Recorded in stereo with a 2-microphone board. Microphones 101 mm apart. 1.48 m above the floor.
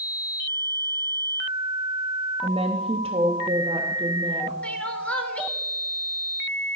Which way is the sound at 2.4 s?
70° right (ahead or behind).